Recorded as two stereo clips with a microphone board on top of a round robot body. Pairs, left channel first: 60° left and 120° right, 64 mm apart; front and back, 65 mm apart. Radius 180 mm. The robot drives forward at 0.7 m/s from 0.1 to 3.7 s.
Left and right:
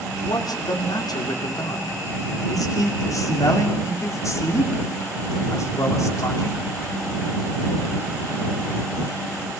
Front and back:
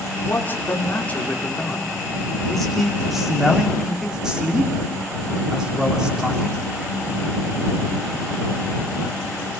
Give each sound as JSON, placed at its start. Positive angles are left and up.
{"t": 0.2, "sound": "a man speaking", "azimuth_deg": 55, "distance_m": 3.5}